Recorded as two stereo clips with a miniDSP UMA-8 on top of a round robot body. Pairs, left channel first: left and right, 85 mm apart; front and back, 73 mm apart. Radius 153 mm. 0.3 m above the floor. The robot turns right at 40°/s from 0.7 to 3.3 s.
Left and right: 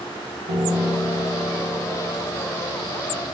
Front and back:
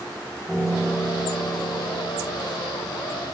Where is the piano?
80° right, 6 m; by 3.2 s 25° left, 6 m.